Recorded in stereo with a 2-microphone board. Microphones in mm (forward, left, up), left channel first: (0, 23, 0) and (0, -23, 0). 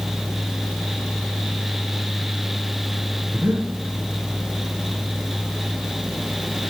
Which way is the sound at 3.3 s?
55° right (ahead or behind).